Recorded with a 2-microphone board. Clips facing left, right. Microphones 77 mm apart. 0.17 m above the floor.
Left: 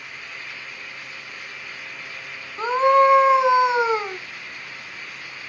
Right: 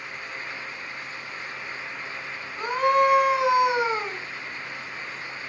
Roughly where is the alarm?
I don't hear an alarm.